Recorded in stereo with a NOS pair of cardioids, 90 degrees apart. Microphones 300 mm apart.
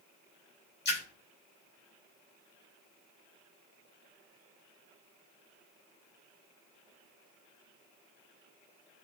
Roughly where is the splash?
Ahead left.